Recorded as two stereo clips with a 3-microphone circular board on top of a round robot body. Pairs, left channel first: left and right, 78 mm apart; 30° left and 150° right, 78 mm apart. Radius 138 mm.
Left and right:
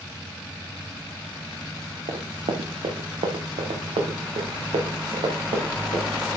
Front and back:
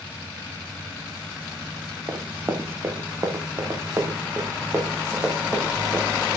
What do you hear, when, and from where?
2.1 s running footsteps: 85° right, 2.5 m; by 6.0 s 80° right, 5 m